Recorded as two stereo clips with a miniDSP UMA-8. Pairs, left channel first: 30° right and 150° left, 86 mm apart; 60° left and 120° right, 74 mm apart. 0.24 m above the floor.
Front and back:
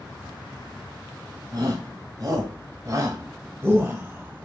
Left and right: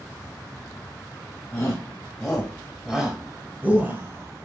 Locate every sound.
1.5 s a shout: 120° left, 2.5 m; by 4.5 s 140° right, 2.0 m